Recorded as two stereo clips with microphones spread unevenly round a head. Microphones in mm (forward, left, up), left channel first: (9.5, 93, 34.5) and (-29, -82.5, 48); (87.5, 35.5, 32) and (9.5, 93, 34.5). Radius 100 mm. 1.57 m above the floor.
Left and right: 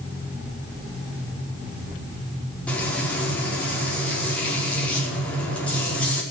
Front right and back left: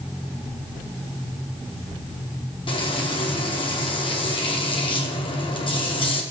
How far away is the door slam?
No door slam in this recording.